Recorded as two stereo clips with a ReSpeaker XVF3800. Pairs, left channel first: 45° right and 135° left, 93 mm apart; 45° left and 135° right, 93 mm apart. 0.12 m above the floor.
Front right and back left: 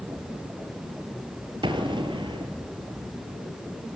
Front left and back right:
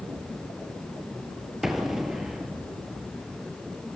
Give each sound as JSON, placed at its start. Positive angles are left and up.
{"t": 1.6, "sound": "an explosion", "azimuth_deg": 140, "distance_m": 2.0}